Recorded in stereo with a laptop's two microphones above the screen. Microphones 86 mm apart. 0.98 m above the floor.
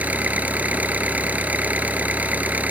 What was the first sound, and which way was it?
An engine running, 20° right (ahead or behind).